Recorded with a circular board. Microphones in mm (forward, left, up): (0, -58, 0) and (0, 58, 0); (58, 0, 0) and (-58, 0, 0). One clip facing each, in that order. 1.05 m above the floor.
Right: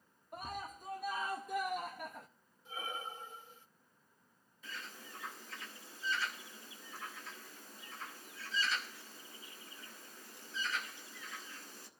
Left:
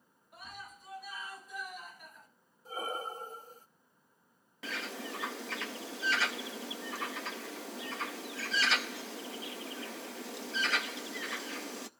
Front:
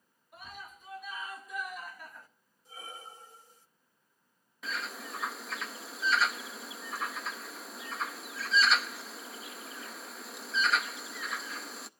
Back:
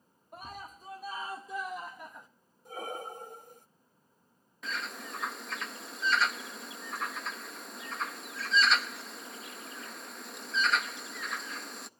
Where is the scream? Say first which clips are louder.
Right 6 dB, back 4 dB; 130° right, 2.5 m; by 2.3 s 110° right, 1.6 m.